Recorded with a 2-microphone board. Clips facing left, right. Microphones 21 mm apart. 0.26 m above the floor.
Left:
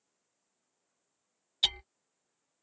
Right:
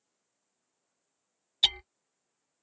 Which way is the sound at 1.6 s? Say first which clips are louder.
Right 4 dB; 20° right (ahead or behind).